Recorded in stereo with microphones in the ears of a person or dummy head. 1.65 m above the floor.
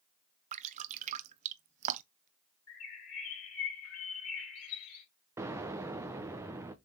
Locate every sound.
0.5 s dripping: 45° right (ahead or behind), 0.6 m
2.7 s a bird: 85° left, 3.5 m
5.4 s an explosion: 15° right (ahead or behind), 0.8 m